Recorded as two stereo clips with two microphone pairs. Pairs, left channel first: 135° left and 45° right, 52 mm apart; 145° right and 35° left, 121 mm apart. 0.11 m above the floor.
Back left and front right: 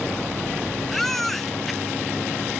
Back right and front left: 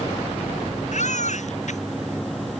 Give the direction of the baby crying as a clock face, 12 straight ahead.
5 o'clock.